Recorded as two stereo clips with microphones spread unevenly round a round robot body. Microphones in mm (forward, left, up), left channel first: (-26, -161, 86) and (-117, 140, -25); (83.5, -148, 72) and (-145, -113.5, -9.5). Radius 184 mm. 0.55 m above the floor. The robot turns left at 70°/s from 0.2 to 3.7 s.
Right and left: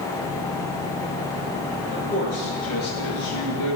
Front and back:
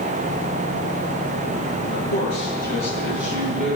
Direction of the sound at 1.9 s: 30° left.